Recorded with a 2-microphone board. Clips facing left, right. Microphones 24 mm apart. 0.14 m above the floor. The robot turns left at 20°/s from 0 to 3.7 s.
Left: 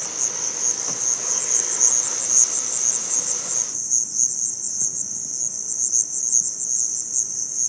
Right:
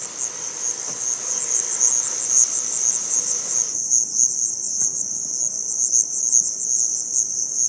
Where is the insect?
45° left; by 7.7 s 30° right.